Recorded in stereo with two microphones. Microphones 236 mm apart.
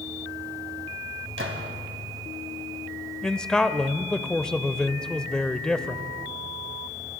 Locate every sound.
1.4 s a gunshot: 60° right (ahead or behind), 2.5 m
3.2 s a man speaking: 5° left (ahead or behind), 0.9 m